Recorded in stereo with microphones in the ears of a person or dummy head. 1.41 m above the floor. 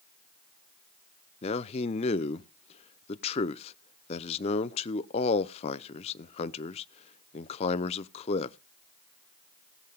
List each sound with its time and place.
1.4 s a man speaking: 30° left (ahead or behind), 0.7 m